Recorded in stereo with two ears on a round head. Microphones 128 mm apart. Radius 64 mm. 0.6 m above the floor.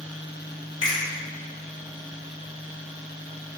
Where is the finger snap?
30° left (ahead or behind), 1.0 m.